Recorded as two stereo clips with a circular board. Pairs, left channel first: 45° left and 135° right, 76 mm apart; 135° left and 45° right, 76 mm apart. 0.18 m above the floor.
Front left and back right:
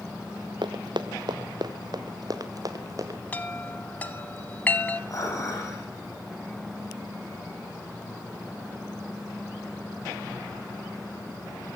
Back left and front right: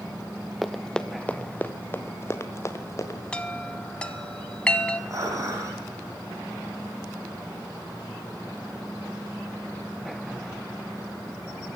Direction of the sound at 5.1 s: Straight ahead.